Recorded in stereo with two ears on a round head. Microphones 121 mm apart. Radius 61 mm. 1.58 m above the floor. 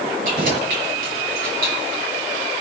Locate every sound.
0.2 s keys jangling: 70° right (ahead or behind), 7.5 m; by 2.0 s 80° right, 8 m